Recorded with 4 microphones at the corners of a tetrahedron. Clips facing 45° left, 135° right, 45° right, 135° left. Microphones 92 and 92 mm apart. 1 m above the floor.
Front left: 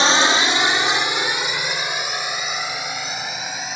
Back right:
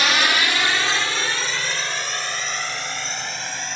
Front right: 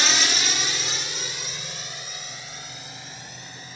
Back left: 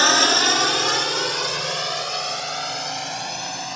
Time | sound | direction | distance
0.0 | a drone | 105° left | ?